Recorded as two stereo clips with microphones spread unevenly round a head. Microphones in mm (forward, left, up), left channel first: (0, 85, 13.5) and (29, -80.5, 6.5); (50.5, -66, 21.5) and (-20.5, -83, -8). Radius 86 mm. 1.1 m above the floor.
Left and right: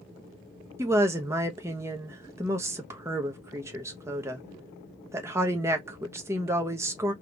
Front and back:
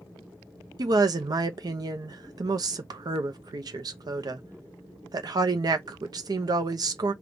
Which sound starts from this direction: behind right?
A woman speaking, at 0.8 s.